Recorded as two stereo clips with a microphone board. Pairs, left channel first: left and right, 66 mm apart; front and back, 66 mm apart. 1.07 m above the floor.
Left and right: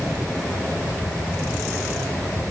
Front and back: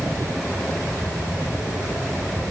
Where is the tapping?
I don't hear tapping.